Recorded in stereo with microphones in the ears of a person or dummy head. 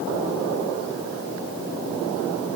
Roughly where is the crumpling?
I don't hear crumpling.